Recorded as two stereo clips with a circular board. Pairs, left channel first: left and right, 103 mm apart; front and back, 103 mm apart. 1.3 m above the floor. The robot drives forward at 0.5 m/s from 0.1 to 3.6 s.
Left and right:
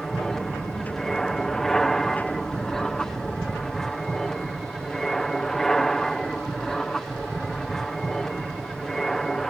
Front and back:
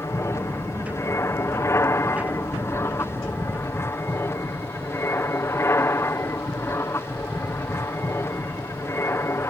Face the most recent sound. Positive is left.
turn(degrees=10)